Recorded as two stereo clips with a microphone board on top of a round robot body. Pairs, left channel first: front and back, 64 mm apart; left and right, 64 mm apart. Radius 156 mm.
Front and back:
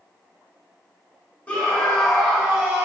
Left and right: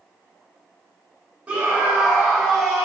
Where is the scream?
45° right, 1.1 m; by 2.9 s 165° left, 1.0 m.